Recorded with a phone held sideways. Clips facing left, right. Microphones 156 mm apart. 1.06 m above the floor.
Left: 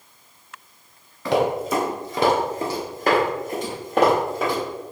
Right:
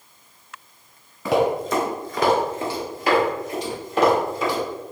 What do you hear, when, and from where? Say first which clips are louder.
1.2 s running footsteps: right 1 dB; 10° right (ahead or behind), 1.1 m; by 4.6 s 65° left (ahead or behind), 2.5 m